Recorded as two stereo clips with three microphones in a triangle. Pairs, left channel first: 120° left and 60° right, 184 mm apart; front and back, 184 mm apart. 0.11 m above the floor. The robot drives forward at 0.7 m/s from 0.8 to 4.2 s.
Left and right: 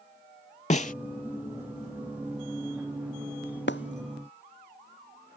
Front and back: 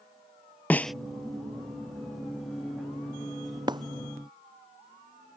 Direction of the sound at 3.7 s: 115° left.